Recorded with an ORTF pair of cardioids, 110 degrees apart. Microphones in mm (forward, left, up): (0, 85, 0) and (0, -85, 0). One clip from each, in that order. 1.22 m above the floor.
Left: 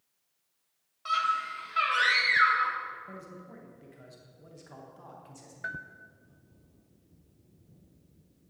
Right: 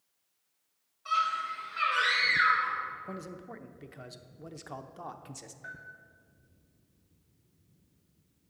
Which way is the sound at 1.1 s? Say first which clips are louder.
Left 1 dB; 60° left.